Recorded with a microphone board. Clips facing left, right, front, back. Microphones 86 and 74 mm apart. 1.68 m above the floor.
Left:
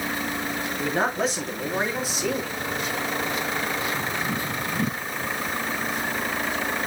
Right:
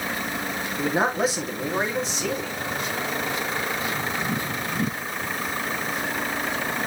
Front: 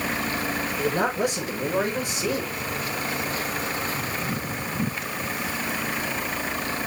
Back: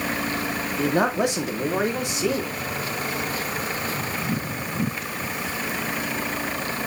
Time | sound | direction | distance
0.8 | a man speaking | 170° right | 2.5 m